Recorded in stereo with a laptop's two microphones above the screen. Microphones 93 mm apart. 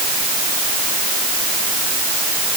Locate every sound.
Only background noise.